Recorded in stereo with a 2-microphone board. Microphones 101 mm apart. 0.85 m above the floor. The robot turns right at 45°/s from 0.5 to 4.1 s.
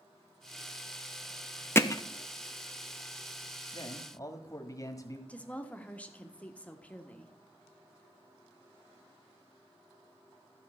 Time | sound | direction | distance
1.8 | hammering | 20° left (ahead or behind) | 0.7 m
3.7 | a man speaking | 45° left (ahead or behind) | 1.6 m
5.3 | a woman speaking | 10° left (ahead or behind) | 1.3 m